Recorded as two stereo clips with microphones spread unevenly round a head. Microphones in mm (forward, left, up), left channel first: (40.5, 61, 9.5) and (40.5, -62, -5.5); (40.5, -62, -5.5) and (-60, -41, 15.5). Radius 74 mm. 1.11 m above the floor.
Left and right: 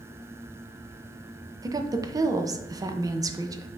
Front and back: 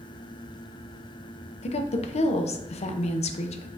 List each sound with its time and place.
1.6 s a woman speaking: 30° right, 0.6 m